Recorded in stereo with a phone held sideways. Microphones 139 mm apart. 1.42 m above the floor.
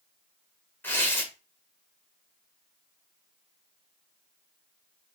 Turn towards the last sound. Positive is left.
turn(degrees=15)  # may be behind; listen again after turning